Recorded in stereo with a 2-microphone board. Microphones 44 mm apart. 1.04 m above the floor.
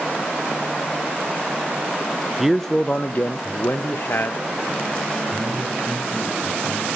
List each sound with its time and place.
2.4 s a man speaking: 10° right (ahead or behind), 0.6 m; by 5.1 s 60° left (ahead or behind), 2.0 m
5.3 s a man speaking: 10° left (ahead or behind), 6 m